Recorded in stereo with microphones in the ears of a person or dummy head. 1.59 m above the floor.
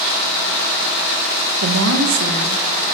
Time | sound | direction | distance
1.6 | a woman speaking | 65° right (ahead or behind) | 0.8 m